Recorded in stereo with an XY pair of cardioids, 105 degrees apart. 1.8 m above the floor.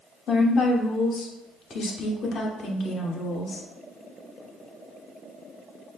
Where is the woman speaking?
60° left, 0.9 m.